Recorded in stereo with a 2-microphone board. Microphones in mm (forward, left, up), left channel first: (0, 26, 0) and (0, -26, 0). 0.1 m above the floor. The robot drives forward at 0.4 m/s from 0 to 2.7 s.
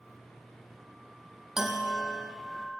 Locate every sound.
1.6 s a bell: 10° right (ahead or behind), 0.8 m; by 2.8 s 5° right (ahead or behind), 1.3 m